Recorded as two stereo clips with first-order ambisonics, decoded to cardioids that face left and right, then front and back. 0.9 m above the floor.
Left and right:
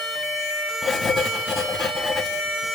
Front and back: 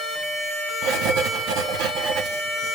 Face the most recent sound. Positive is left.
turn(degrees=165)